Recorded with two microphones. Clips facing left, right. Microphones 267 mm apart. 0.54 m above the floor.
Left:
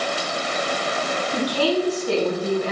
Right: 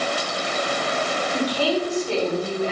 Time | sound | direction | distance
1.3 | a woman speaking | 80° left | 4 m